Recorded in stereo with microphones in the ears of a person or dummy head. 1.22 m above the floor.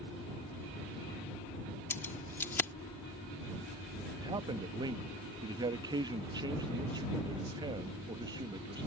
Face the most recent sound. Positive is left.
turn(degrees=-25)  # may be behind; listen again after turning